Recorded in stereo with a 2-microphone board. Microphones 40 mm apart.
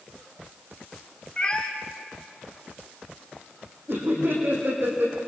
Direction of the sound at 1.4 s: 25° left (ahead or behind).